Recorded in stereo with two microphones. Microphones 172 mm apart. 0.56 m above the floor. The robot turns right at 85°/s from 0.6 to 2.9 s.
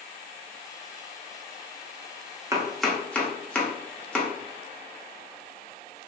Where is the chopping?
20° right (ahead or behind), 0.6 m; by 4.3 s 5° left (ahead or behind), 0.6 m.